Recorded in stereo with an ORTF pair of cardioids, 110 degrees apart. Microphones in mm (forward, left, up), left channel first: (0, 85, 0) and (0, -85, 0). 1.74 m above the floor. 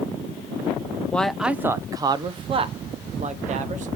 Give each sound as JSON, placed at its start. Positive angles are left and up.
{"t": 1.1, "sound": "a man speaking", "azimuth_deg": 10, "distance_m": 0.8}